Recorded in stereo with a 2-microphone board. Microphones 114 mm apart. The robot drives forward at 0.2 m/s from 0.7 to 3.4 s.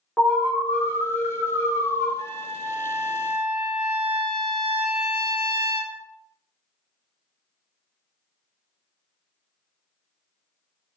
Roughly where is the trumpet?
Right.